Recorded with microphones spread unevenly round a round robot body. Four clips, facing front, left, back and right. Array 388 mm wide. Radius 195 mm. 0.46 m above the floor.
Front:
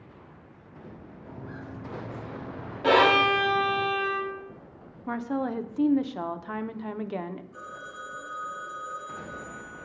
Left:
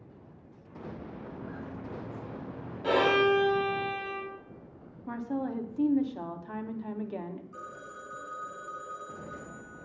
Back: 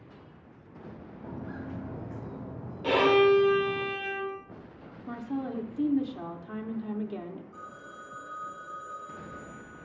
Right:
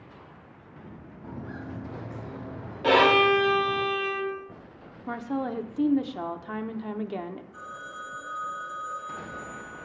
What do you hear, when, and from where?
1.2 s footsteps: 135° right, 2 m; by 3.8 s 120° right, 4 m
2.8 s a violin: 50° right, 4 m
5.1 s a woman speaking: 80° right, 1.1 m
7.5 s a phone ringing: 95° left, 3 m